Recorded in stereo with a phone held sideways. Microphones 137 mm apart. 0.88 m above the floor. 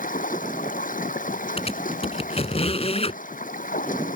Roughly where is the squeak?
Left.